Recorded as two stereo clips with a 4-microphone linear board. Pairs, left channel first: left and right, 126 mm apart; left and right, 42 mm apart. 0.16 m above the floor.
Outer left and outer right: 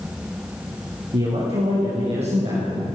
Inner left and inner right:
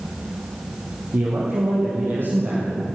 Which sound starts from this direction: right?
A man speaking, at 1.1 s.